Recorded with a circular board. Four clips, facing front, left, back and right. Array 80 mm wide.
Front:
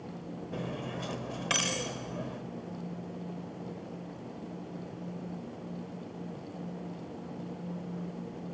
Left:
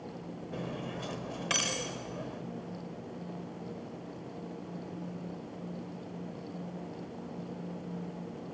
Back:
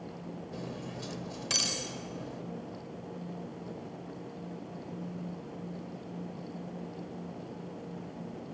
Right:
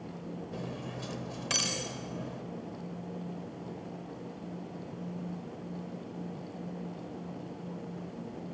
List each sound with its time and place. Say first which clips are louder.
0.5 s cutlery clinking: left 5 dB, front 5 dB; 20° left, 0.7 m